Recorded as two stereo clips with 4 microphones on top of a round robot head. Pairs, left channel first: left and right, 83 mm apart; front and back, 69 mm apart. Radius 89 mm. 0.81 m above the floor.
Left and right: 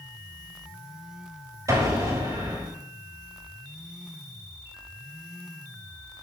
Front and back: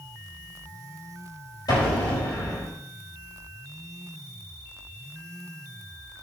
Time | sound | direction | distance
1.7 | an explosion | 40° right | 5.5 m